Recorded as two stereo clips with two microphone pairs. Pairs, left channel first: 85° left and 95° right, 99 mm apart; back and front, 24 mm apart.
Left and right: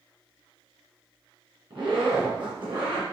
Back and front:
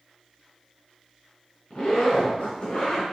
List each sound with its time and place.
1.7 s a zipper: 135° right, 3.5 m